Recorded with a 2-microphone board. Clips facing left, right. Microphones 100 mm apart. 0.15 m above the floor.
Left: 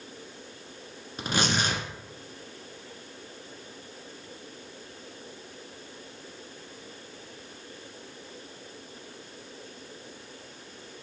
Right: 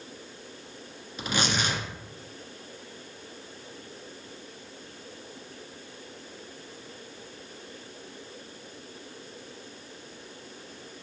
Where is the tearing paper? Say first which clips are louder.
Left 1 dB; 45° left (ahead or behind), 1.2 m.